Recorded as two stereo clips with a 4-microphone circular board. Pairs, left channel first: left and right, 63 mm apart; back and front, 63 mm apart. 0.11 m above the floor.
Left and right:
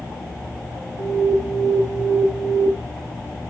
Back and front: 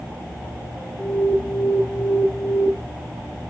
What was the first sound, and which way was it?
An alarm, 115° left.